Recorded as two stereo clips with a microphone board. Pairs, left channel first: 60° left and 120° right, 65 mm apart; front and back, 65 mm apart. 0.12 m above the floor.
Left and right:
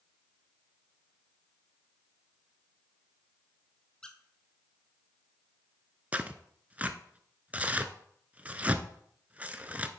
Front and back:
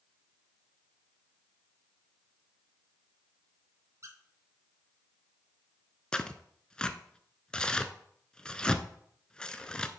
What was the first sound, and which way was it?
A squeak, 140° left.